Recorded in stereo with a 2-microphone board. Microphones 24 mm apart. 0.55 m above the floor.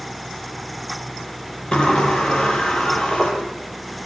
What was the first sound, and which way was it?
A sliding door, 50° left (ahead or behind).